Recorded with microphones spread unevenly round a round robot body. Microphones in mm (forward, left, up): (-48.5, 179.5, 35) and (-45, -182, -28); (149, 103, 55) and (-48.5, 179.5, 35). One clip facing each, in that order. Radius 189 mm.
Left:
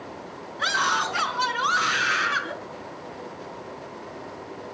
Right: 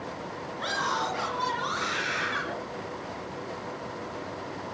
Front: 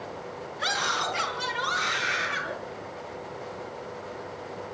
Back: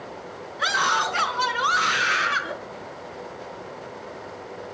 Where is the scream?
135° left, 6 m; by 2.5 s 150° left, 6.5 m.